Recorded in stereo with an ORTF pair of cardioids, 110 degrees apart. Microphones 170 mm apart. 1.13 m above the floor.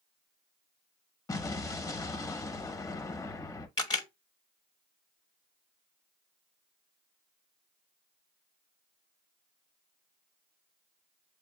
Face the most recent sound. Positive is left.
turn(degrees=25)